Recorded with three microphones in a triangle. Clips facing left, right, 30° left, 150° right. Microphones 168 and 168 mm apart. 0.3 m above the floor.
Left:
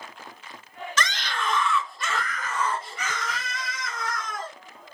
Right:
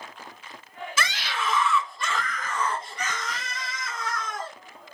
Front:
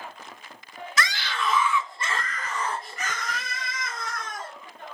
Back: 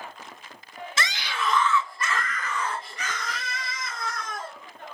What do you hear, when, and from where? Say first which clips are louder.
1.0 s a scream: left 1 dB, front 2 dB; 160° right, 1.0 m; by 4.5 s 10° left, 3 m